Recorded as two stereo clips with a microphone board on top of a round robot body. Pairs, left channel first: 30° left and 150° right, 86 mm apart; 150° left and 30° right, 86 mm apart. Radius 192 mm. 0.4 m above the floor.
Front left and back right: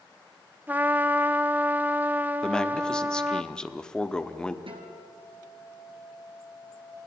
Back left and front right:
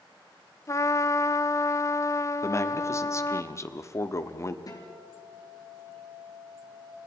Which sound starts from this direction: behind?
A guitar, at 4.7 s.